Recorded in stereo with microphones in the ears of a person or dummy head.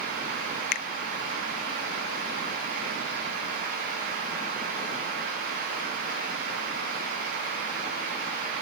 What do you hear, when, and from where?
0.7 s a finger snap: 50° left (ahead or behind)